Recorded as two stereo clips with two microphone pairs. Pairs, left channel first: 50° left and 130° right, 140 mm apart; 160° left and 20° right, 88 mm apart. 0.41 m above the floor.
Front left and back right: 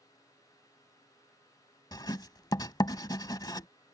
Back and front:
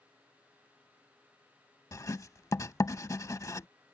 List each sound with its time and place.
1.9 s writing: 105° left